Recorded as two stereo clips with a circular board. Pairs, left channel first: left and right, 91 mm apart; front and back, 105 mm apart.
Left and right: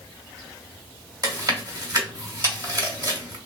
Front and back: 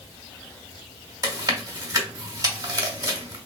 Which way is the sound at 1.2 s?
125° right.